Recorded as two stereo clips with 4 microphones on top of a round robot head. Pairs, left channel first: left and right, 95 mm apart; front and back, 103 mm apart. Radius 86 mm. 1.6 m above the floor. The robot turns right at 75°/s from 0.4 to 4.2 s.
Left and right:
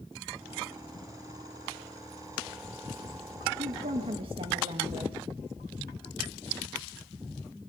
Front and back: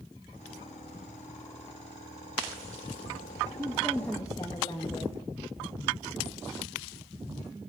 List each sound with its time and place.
3.6 s a woman speaking: 110° right, 2.0 m; by 5.2 s 65° right, 2.0 m